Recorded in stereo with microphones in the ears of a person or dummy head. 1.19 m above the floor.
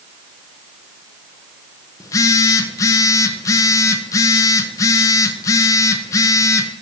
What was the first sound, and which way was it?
A phone buzzing, 20° left (ahead or behind).